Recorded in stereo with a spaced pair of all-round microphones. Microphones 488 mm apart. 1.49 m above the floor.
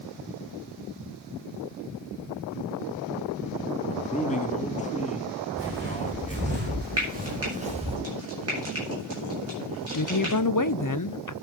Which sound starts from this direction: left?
A woman speaking, at 9.9 s.